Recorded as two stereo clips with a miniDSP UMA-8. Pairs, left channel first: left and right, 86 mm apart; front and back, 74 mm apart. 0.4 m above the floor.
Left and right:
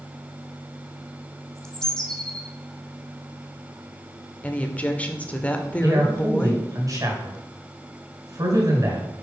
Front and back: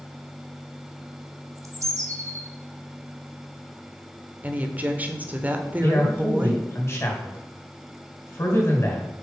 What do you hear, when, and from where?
1.6 s a bird: 170° left, 0.9 m
4.4 s a woman speaking: 145° left, 0.9 m
5.8 s a man speaking: 50° right, 2.5 m